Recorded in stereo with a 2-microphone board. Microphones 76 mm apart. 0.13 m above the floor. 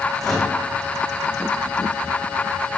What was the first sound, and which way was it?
A microwave, centre (ahead or behind).